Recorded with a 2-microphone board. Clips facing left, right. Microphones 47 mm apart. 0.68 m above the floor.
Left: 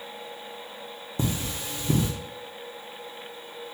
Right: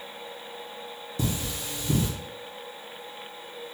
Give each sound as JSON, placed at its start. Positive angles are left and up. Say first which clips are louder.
{"t": 1.2, "sound": "cutlery clinking", "louder": "left 1 dB", "side_deg": 35, "distance_m": 0.7}